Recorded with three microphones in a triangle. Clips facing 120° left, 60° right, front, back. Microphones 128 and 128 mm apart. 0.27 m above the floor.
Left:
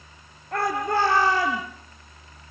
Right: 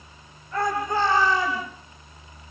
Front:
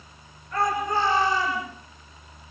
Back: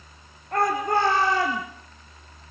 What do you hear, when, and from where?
0.5 s a shout: 145° left, 4 m; by 1.6 s 150° left, 5 m